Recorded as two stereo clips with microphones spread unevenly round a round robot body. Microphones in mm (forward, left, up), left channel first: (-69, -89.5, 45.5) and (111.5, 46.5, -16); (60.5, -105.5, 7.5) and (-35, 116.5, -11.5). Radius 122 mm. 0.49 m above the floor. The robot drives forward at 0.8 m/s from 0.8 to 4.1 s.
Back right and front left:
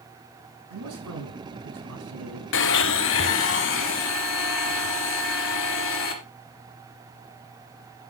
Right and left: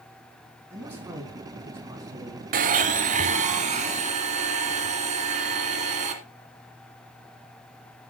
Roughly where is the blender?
Behind.